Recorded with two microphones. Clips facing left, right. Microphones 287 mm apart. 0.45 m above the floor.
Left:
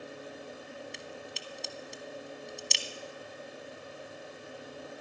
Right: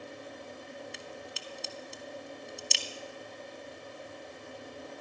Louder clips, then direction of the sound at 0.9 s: Even; centre (ahead or behind).